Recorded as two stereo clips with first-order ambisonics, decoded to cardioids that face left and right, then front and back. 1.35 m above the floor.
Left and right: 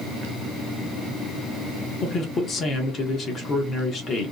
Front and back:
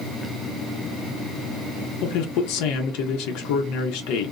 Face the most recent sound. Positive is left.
turn(degrees=25)